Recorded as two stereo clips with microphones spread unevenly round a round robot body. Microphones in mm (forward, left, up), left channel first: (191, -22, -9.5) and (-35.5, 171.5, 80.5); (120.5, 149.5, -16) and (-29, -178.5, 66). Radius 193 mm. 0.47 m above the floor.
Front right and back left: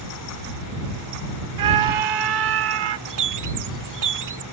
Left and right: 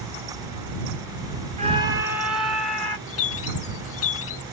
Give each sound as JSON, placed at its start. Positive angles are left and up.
{"t": 1.6, "sound": "a scream", "azimuth_deg": 165}
{"t": 3.1, "sound": "a bird", "azimuth_deg": 125}